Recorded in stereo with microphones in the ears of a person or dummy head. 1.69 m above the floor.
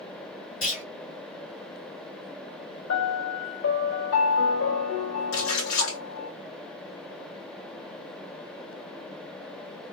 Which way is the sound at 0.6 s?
40° left (ahead or behind).